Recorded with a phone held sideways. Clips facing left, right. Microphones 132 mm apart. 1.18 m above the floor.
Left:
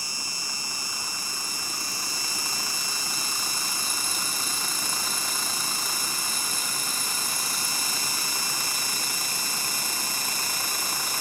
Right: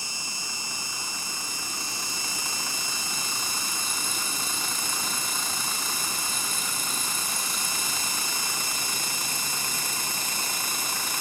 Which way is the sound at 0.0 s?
25° right (ahead or behind).